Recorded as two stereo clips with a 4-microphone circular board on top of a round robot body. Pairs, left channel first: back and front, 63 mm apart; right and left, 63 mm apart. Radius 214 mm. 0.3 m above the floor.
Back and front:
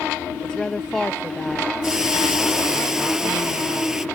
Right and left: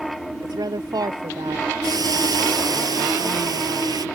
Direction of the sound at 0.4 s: 100° left.